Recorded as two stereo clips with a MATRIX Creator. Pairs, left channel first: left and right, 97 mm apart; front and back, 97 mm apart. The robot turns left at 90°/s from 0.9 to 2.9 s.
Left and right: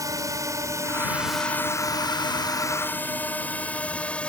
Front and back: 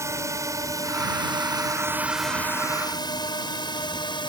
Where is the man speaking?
I don't hear a man speaking.